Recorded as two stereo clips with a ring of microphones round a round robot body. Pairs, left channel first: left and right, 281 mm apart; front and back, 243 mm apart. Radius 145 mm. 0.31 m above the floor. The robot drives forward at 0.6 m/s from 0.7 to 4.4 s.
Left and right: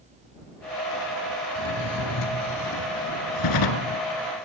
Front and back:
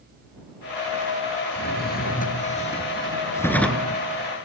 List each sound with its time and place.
1.6 s a drawer: 50° left, 2 m; by 4.0 s 95° left, 1.5 m